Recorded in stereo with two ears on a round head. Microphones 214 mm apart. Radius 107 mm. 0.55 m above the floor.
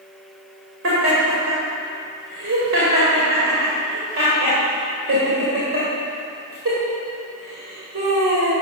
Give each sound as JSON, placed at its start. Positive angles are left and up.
{"t": 0.8, "sound": "laughter", "side_deg": -55, "distance_m": 2.5}